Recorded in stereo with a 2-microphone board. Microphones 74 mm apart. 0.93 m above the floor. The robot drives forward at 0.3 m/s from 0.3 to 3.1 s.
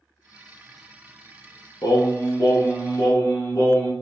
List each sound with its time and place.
1.8 s singing: 55° left (ahead or behind), 0.5 m; by 3.9 s 35° left (ahead or behind), 0.8 m